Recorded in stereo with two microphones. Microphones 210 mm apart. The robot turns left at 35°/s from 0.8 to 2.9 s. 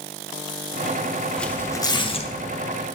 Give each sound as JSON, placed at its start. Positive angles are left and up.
{"t": 1.4, "sound": "tearing paper", "side_deg": 5, "distance_m": 0.6}